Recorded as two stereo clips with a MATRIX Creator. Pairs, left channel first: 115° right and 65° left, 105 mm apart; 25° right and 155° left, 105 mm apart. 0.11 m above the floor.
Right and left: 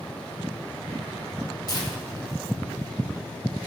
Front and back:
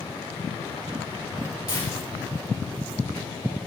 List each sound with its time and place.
1.7 s tearing paper: 80° right, 2.5 m